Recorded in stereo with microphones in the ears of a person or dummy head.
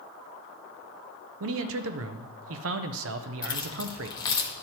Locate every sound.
1.4 s a man speaking: 75° right (ahead or behind), 0.5 m
3.4 s keys jangling: 25° left (ahead or behind), 1.0 m